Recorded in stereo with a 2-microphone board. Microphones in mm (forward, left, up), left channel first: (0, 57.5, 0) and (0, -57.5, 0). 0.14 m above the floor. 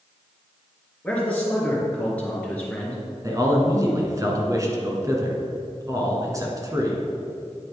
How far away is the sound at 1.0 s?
About 2.5 m.